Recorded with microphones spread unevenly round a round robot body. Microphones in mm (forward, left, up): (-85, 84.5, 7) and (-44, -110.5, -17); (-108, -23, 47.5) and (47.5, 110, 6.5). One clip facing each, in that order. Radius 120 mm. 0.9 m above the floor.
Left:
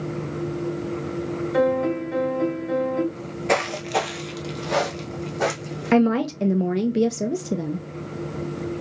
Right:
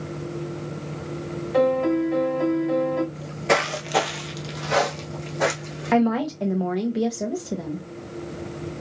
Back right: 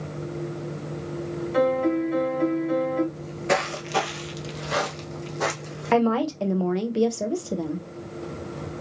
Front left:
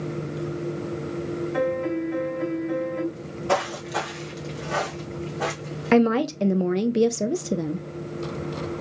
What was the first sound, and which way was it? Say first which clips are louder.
A piano: right 2 dB, back right 5 dB; straight behind.